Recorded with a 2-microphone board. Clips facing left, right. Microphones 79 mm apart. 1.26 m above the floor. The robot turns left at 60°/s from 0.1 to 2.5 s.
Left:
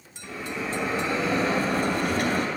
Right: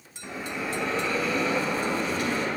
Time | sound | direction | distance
0.2 | a bell | 150° right | 2 m